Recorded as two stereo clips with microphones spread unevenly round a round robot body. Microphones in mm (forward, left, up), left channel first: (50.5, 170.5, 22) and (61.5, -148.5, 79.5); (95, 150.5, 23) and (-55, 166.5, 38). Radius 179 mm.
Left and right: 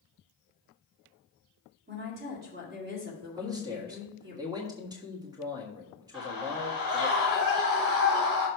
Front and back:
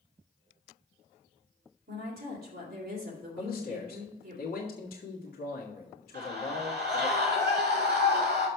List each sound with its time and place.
1.9 s a woman speaking: 155° right, 2.5 m
3.4 s a man speaking: 5° right, 1.5 m
6.1 s a scream: 170° right, 3.5 m